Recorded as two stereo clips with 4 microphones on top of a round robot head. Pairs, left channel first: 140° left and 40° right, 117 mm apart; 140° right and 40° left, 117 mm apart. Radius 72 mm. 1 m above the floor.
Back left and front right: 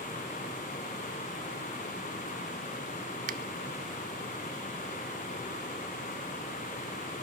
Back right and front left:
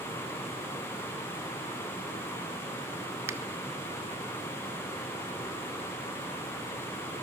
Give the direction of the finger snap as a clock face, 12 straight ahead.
1 o'clock.